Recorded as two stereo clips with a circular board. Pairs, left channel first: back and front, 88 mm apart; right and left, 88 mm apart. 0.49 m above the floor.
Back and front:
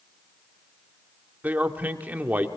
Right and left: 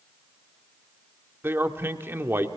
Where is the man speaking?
55° left, 1.1 m.